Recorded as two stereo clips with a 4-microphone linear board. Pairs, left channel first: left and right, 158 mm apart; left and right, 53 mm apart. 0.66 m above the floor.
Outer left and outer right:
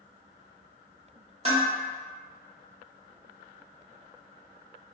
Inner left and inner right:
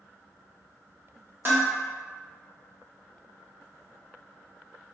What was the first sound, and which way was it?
Dishes clattering, 40° right (ahead or behind).